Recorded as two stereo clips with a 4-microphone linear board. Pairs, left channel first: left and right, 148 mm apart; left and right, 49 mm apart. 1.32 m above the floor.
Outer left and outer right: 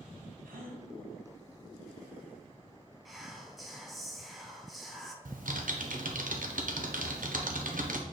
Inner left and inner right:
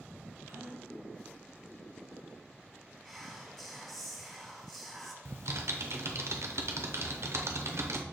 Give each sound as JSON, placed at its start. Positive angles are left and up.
{"t": 0.5, "sound": "a gasp", "side_deg": -75, "distance_m": 1.0}
{"t": 3.0, "sound": "whispering", "side_deg": 0, "distance_m": 0.6}
{"t": 5.2, "sound": "typing on a keyboard", "side_deg": -65, "distance_m": 0.7}